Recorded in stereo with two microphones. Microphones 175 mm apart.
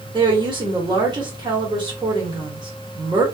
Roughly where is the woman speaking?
Right.